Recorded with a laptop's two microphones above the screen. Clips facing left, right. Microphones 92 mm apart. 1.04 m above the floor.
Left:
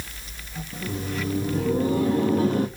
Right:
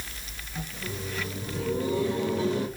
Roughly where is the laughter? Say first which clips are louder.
Left 6 dB; left.